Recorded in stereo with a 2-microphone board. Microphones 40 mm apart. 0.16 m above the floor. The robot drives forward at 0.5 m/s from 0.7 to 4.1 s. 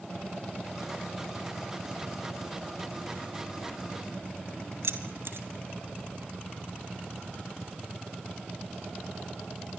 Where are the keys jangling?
70° right (ahead or behind), 3 m.